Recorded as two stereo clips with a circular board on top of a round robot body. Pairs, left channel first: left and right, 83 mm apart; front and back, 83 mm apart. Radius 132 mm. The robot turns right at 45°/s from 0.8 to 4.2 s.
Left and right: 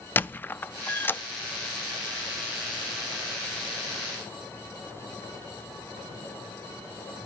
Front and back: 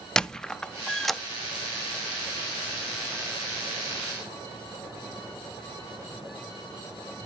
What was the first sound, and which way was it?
A squeak, 70° left.